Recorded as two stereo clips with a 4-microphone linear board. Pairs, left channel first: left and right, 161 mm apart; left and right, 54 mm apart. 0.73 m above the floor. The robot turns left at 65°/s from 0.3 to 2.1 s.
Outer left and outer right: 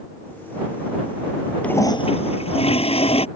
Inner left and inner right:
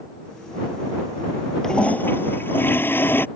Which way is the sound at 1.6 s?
10° left (ahead or behind).